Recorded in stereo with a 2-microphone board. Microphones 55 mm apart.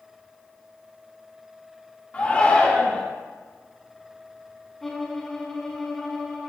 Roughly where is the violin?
Centre.